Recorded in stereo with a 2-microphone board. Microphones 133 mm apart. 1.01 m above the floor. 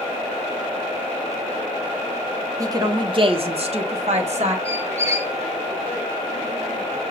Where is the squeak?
20° right (ahead or behind), 0.6 m.